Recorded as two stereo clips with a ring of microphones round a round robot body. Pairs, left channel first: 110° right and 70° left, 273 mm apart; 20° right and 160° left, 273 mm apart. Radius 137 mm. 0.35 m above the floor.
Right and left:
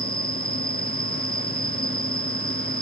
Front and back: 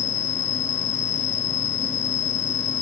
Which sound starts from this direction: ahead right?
An insect, at 0.0 s.